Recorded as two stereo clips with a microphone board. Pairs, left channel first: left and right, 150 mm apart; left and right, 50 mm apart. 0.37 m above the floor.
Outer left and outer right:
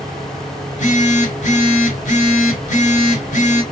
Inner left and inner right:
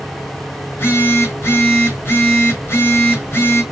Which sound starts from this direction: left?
A phone buzzing, at 0.7 s.